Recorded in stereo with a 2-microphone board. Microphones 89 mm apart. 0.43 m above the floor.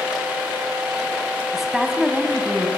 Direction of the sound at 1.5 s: 5° right (ahead or behind).